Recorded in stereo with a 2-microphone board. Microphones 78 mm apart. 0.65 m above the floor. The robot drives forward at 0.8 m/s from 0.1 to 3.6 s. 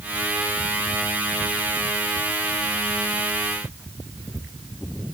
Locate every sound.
Only background noise.